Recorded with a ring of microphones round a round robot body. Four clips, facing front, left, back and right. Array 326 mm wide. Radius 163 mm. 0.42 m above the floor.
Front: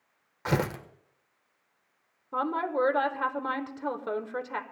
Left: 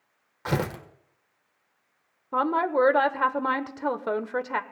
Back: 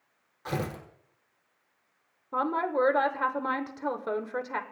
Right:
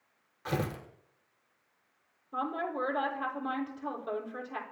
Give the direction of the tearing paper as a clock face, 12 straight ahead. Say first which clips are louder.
Left 5 dB, front 4 dB; 11 o'clock.